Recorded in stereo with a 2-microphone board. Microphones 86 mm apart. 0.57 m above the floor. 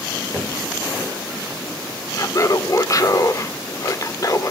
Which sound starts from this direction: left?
Laughter, at 2.1 s.